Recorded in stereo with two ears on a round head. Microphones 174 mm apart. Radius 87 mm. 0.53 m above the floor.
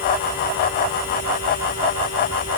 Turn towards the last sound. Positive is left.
No sound to turn to.